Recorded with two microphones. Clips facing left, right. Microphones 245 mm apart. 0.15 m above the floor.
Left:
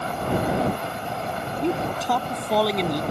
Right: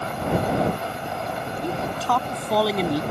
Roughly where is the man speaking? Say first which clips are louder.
Left 4 dB; left.